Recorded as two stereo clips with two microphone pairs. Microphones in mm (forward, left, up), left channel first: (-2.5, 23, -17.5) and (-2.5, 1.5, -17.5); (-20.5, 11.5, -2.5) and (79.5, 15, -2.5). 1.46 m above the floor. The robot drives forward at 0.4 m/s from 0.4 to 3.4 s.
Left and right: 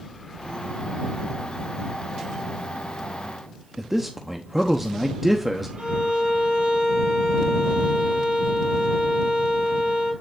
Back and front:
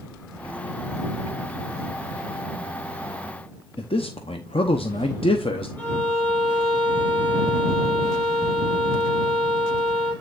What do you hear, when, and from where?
3.8 s a man speaking: 175° right, 0.9 m
5.8 s a violin: 110° right, 6 m